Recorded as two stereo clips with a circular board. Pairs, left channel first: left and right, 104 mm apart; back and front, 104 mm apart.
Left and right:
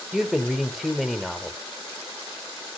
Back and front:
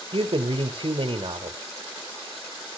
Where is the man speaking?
5° left, 1.4 m.